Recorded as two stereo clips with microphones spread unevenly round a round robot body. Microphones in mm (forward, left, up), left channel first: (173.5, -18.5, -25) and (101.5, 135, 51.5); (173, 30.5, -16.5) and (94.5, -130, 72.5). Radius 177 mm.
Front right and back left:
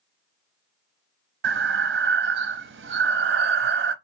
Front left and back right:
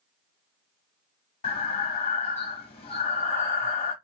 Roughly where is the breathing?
Left.